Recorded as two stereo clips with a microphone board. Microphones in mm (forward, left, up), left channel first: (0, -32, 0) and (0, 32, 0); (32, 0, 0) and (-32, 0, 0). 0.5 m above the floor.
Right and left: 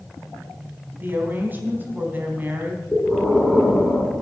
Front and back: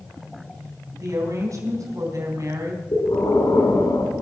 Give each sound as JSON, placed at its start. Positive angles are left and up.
{"t": 1.0, "sound": "a woman speaking", "azimuth_deg": 150, "distance_m": 3.0}
{"t": 2.9, "sound": "breathing", "azimuth_deg": 0, "distance_m": 3.0}